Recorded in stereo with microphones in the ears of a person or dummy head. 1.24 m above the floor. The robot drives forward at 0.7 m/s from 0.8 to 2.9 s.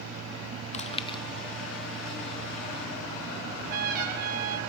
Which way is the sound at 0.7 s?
35° left (ahead or behind).